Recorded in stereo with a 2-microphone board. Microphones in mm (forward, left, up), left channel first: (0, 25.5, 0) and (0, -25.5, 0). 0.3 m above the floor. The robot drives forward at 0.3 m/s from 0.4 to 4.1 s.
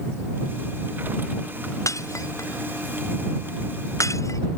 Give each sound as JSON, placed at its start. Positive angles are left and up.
{"t": 1.9, "sound": "breaking glass", "side_deg": 85}